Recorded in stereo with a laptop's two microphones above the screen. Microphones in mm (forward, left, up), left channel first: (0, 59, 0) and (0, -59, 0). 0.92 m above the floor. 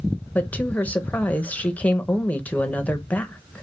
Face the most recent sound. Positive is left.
turn(degrees=15)  # may be behind; listen again after turning